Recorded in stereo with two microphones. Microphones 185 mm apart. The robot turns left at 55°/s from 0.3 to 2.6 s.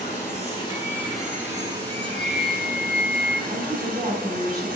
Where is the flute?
120° left, 0.8 m; by 3.4 s 85° left, 0.8 m.